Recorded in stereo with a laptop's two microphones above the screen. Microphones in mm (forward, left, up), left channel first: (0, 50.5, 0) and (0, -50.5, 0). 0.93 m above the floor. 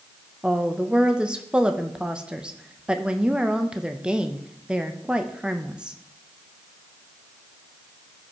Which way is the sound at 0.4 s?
10° right (ahead or behind).